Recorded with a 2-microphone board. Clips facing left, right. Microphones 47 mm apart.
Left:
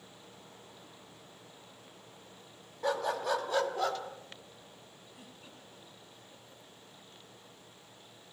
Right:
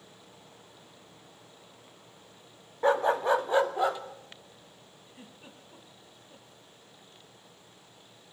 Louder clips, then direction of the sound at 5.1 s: Right 4 dB; 25° right (ahead or behind).